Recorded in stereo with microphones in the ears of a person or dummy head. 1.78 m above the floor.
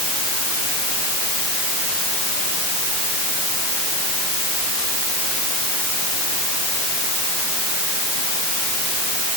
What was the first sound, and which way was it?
Only background noise.